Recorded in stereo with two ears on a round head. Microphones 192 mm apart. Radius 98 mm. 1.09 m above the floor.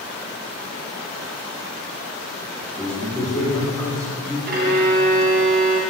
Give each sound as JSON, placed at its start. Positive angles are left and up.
{"t": 2.6, "sound": "a man speaking", "side_deg": 5, "distance_m": 4.0}
{"t": 4.5, "sound": "a violin", "side_deg": -50, "distance_m": 2.5}